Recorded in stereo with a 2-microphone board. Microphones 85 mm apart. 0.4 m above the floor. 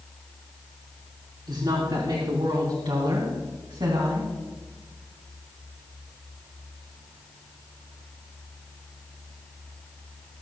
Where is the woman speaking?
65° right (ahead or behind), 3 m; by 4.3 s 70° right (ahead or behind), 3 m.